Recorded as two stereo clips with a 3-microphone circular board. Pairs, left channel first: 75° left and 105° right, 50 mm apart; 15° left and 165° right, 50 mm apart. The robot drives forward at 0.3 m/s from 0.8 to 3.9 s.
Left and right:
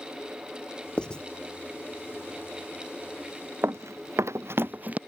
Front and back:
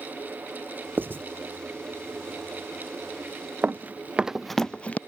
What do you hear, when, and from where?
1.0 s writing: 145° left
3.6 s running footsteps: 120° right; by 5.0 s 45° right